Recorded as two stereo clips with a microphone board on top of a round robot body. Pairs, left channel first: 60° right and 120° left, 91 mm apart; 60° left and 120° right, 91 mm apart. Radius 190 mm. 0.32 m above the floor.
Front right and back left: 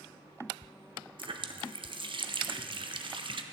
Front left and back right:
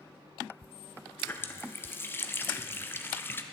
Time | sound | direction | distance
1.2 | a running tap | 125° left | 1.0 m